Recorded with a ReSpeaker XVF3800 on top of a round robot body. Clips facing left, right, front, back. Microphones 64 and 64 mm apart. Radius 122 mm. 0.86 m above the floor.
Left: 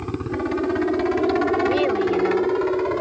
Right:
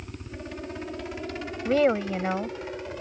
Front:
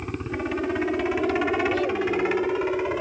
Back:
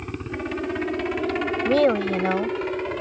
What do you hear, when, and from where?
0.0 s a helicopter: 85° left; by 3.0 s 80° left
1.6 s a woman speaking: 160° right